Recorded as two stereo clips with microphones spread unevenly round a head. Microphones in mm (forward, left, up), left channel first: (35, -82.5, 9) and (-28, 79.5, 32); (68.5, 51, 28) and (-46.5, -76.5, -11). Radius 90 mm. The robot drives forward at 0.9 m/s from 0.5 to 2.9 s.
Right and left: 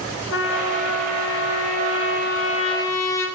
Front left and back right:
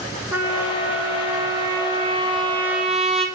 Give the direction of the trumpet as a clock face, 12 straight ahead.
2 o'clock.